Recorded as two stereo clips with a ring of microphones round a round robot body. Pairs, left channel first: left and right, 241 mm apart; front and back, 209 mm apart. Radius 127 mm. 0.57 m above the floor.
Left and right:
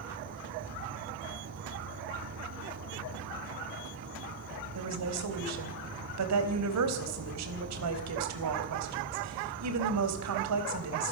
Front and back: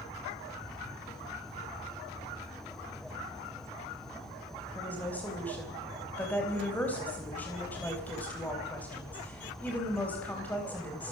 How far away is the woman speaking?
About 4 m.